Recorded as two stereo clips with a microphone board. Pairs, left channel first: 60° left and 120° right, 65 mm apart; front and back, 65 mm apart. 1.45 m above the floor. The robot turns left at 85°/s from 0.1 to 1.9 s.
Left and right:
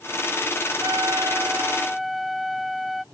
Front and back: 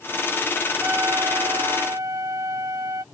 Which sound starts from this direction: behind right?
A trumpet, at 0.8 s.